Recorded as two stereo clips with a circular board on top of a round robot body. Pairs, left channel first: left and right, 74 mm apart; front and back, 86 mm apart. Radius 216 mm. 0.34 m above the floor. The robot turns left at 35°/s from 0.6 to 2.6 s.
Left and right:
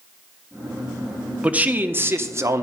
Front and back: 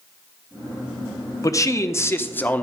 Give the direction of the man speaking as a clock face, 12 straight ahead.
1 o'clock.